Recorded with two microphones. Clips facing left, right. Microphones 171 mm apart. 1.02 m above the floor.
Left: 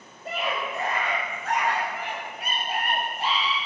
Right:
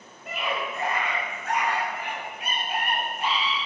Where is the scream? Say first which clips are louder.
Left 1 dB; 35° left (ahead or behind), 5.5 m.